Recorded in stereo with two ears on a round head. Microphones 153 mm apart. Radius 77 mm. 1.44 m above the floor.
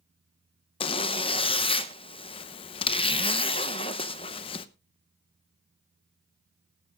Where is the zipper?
30° left (ahead or behind), 0.7 m.